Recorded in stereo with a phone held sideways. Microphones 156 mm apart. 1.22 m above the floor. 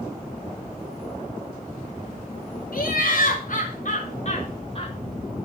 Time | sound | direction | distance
2.7 | laughter | 75° left (ahead or behind) | 3 m